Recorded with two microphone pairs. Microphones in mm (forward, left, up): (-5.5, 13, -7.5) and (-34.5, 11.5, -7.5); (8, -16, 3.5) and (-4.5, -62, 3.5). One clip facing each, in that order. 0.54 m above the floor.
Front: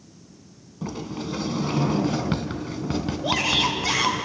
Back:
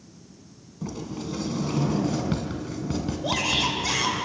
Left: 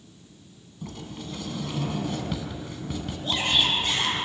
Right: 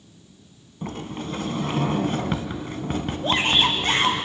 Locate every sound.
0.8 s a sliding door: 60° right, 1.5 m
3.2 s a shout: 75° right, 2.5 m